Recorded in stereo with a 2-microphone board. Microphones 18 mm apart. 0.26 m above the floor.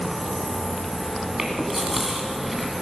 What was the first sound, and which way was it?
Chewing, 20° right (ahead or behind).